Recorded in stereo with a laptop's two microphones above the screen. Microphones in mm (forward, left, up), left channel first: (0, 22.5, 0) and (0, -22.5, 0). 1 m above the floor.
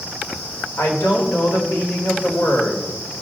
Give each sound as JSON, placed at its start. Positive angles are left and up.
{"t": 0.8, "sound": "a woman speaking", "side_deg": 70, "distance_m": 3.0}